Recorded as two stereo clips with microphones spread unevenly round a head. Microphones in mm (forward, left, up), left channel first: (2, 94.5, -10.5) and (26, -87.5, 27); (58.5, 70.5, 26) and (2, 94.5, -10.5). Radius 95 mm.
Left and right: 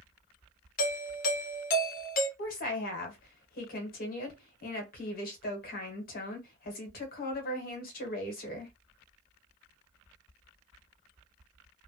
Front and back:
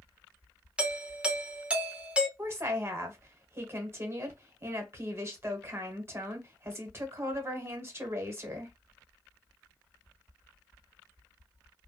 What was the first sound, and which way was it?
A doorbell, 115° left.